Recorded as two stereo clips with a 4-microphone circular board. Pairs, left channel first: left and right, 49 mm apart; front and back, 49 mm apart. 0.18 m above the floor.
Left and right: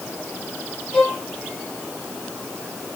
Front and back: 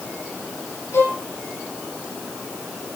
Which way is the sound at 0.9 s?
15° left.